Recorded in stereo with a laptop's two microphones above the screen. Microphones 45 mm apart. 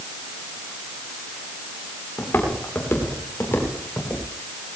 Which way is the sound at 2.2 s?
50° left (ahead or behind).